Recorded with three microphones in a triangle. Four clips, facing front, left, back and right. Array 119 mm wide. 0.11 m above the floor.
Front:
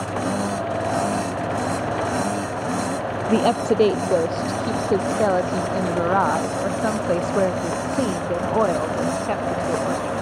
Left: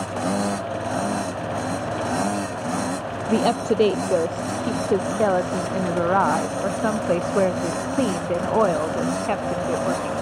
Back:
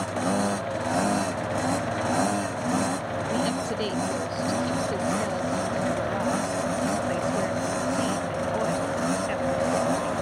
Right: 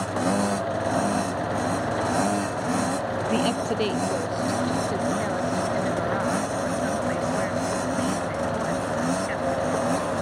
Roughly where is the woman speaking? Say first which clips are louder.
Left 6 dB, front 10 dB; ahead left.